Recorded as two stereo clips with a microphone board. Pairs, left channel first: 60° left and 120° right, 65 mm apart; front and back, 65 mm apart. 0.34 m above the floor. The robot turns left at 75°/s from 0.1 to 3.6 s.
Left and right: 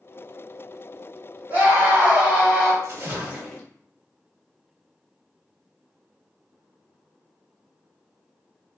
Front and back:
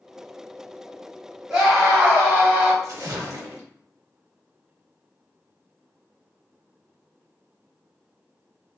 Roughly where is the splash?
Behind right.